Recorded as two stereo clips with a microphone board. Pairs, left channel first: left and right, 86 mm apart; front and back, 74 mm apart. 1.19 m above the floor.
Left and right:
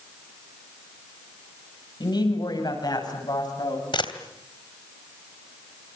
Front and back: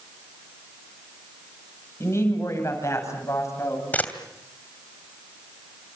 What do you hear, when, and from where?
2.0 s a woman speaking: 55° left, 9 m; by 3.8 s 50° left, 10 m
3.9 s a camera shutter: 70° left, 2.5 m